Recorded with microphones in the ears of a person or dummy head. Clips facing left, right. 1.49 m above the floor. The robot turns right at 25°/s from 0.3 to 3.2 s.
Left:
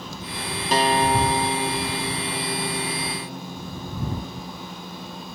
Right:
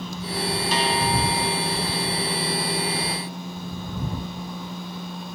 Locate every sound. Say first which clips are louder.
0.7 s a guitar: left 6 dB; 45° left; by 4.5 s 105° left